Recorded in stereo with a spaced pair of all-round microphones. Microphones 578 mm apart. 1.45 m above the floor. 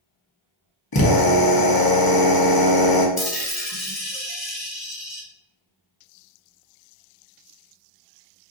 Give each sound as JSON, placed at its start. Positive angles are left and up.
{"t": 0.9, "sound": "a drill", "side_deg": 40, "distance_m": 0.9}
{"t": 3.2, "sound": "a dropped coin", "side_deg": 35, "distance_m": 1.6}